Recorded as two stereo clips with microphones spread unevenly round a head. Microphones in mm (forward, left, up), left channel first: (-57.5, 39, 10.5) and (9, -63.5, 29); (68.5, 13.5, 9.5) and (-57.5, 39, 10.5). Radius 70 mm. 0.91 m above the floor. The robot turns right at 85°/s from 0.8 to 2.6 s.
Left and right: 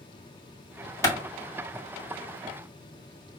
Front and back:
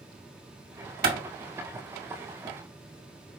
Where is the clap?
175° right, 1.7 m; by 1.2 s 165° right, 1.7 m.